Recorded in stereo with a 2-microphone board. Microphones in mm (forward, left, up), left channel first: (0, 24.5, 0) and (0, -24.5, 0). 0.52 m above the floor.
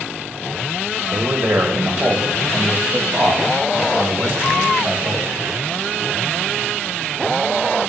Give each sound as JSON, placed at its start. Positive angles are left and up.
{"t": 1.1, "sound": "a man speaking", "side_deg": -50, "distance_m": 1.9}